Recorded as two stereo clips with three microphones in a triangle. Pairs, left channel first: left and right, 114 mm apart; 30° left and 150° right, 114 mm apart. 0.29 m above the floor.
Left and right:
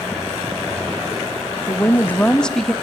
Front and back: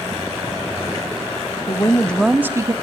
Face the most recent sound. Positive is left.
turn(degrees=175)